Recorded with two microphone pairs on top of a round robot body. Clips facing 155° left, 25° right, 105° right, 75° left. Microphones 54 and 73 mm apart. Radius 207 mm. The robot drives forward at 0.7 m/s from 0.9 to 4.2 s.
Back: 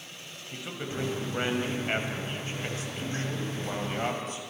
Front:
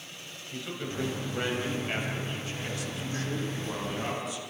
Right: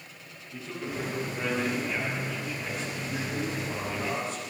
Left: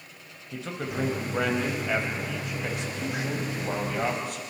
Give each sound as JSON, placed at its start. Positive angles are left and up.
{"t": 0.5, "sound": "a man speaking", "azimuth_deg": 80, "distance_m": 5.0}